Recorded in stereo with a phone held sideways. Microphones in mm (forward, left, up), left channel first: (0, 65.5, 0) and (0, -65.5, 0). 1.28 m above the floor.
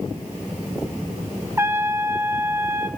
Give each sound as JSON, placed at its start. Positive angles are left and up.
{"t": 1.6, "sound": "a trumpet", "side_deg": -20, "distance_m": 1.0}